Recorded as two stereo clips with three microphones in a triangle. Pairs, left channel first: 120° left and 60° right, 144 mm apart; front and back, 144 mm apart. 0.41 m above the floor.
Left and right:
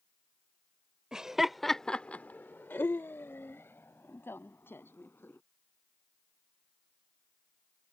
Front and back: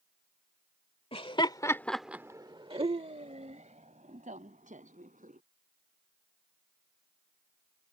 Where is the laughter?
25° left; by 5.4 s 165° right.